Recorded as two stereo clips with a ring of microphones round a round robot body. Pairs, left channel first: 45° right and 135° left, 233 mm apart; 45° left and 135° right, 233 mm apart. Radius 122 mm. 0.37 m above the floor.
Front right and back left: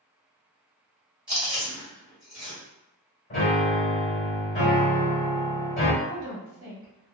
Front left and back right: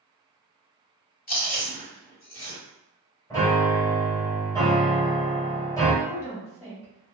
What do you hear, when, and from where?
1.3 s chewing: 50° left, 1.7 m
3.3 s a piano: 20° right, 1.6 m
6.0 s a woman speaking: 115° left, 1.3 m